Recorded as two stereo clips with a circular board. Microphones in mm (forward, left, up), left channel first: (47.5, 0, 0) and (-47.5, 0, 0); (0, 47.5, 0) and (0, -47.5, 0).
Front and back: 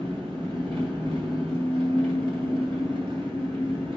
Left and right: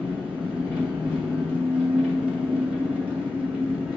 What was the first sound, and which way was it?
An engine running, 170° right.